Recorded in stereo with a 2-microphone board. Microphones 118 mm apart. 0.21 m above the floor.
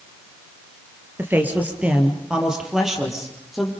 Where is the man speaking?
20° right (ahead or behind), 3.5 m; by 3.7 s centre (ahead or behind), 5.5 m.